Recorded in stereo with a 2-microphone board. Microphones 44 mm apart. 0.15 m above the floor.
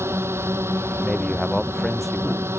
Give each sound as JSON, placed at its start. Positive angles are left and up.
{"t": 0.0, "sound": "a drone", "side_deg": -75}
{"t": 1.0, "sound": "a man speaking", "side_deg": 0}